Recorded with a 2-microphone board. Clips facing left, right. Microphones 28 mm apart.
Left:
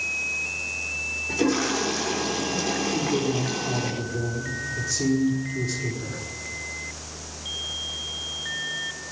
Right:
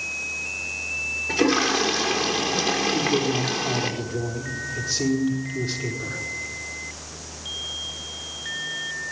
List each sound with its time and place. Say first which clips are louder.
1.3 s a toilet flushing: right 3 dB; 65° right (ahead or behind), 5 m
2.9 s a man speaking: right 2 dB; 35° right (ahead or behind), 5 m